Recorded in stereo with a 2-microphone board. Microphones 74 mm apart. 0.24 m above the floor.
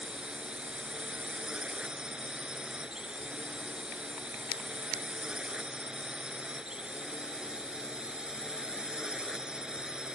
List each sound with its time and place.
0.0 s a drone: 10° right (ahead or behind)